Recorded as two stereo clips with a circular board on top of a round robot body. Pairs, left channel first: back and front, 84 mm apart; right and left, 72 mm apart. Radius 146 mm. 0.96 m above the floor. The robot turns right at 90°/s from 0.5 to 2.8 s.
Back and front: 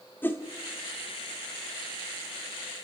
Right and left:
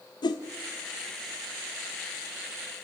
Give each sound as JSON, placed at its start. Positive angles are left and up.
{"t": 0.2, "sound": "a whoosh", "azimuth_deg": -110, "distance_m": 1.3}